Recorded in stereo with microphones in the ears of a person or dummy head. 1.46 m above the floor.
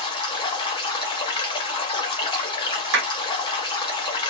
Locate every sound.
0.0 s running water: 20° left (ahead or behind), 0.7 m
2.9 s a clap: 70° right (ahead or behind), 1.7 m